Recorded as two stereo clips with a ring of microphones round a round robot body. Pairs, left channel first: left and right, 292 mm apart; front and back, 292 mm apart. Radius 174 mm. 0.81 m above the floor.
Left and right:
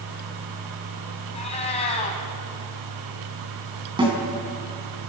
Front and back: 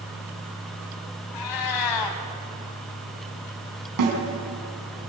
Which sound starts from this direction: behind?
A snare drum, at 4.0 s.